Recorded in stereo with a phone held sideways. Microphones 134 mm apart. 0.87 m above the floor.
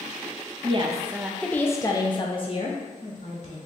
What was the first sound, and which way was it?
A woman speaking, 40° right (ahead or behind).